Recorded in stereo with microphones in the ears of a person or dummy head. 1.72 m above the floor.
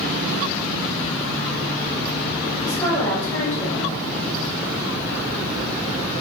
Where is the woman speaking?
5° left (ahead or behind), 0.9 m.